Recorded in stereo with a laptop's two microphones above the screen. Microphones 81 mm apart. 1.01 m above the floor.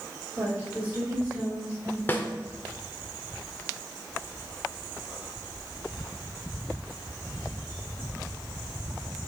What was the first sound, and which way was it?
A woman speaking, 15° right (ahead or behind).